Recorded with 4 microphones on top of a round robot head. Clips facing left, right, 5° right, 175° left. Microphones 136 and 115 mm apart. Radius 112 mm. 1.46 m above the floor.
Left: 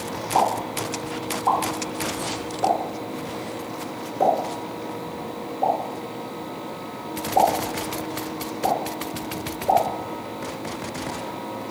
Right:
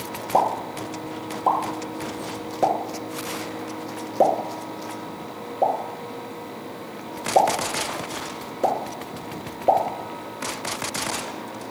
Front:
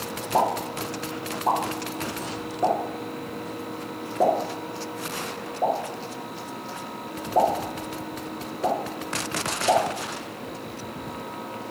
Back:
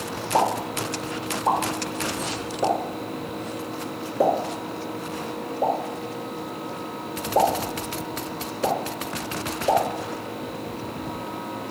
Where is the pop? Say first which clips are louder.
Even, back 1 dB; 100° right, 1.4 m.